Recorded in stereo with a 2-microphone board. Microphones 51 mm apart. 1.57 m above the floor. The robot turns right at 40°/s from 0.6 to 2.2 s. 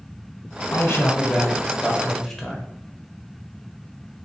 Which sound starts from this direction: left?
A man speaking, at 0.7 s.